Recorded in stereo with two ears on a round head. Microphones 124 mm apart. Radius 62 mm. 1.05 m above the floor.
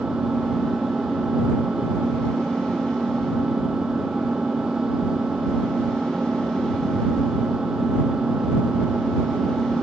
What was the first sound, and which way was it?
An engine running, 5° right (ahead or behind).